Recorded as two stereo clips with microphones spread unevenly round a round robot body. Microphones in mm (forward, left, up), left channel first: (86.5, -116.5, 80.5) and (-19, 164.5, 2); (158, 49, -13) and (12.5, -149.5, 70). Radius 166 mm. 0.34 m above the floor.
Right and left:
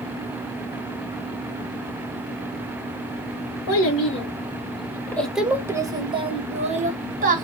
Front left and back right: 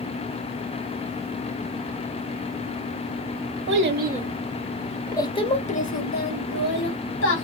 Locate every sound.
3.7 s a child speaking: 95° right, 1.0 m; by 7.4 s 55° left, 2 m